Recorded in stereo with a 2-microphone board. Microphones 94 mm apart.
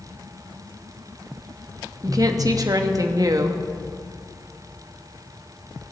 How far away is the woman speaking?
About 1.1 m.